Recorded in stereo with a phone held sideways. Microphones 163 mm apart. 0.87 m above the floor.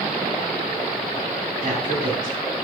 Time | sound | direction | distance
1.6 | a man speaking | 55° right (ahead or behind) | 6 m